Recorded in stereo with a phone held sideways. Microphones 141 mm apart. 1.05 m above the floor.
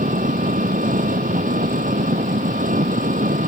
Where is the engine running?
75° right (ahead or behind).